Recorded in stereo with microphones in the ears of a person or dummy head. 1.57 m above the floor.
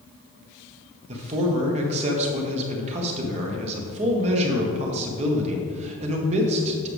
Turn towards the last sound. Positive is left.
turn(degrees=-40)  # may be behind; listen again after turning